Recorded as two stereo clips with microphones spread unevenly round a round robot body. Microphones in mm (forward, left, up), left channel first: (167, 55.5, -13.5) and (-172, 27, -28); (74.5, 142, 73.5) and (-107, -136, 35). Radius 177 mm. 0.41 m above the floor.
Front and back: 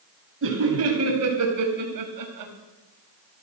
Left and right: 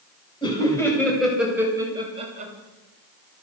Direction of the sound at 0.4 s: 135° left.